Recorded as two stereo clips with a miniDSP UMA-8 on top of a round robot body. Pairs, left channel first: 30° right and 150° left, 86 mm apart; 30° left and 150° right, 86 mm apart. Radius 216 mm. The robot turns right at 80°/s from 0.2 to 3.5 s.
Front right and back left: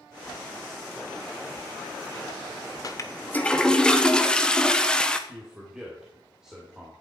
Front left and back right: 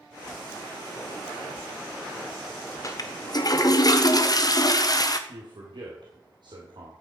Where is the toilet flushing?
5° right, 1.3 m; by 5.2 s 45° left, 1.3 m.